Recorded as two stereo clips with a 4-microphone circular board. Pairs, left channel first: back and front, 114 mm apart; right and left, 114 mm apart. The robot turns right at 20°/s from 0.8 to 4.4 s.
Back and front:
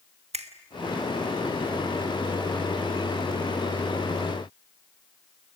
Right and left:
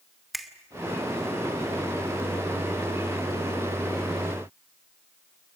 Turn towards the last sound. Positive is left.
turn(degrees=75)